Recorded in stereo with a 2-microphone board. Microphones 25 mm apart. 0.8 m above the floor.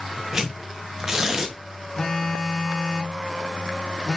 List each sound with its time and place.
0.3 s tearing paper: 20° right (ahead or behind), 0.7 m
2.0 s a phone buzzing: 30° left (ahead or behind), 0.8 m